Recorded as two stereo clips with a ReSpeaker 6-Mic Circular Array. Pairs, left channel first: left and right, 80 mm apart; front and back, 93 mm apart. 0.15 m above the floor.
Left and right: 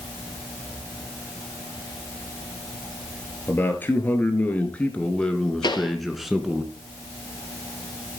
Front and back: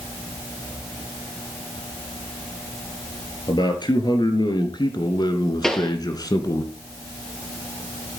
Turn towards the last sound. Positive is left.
turn(degrees=85)